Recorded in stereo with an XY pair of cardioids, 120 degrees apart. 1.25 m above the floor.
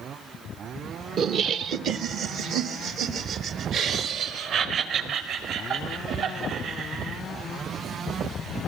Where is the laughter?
50° right, 0.8 m; by 7.2 s 70° right, 8 m.